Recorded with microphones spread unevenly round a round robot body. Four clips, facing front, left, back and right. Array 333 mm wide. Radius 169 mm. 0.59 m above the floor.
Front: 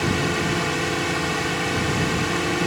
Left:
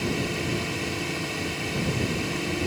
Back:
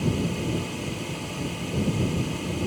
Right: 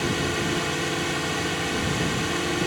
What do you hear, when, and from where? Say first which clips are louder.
0.0 s a drone: right 2 dB, front 4 dB; 15° right